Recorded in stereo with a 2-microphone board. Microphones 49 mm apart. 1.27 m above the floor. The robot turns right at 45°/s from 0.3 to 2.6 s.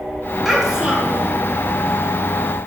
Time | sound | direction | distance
0.5 | a child speaking | straight behind | 1.1 m